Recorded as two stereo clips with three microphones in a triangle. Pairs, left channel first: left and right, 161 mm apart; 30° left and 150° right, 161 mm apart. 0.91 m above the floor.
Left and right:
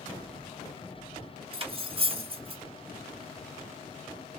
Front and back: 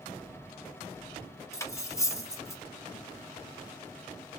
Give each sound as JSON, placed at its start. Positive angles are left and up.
{"t": 1.5, "sound": "cutlery clinking", "azimuth_deg": -40, "distance_m": 0.5}